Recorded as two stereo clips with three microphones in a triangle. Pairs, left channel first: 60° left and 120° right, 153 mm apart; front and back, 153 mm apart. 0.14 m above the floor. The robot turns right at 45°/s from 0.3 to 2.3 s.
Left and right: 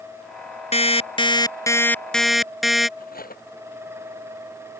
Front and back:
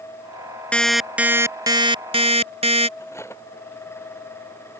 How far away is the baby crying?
I don't hear a baby crying.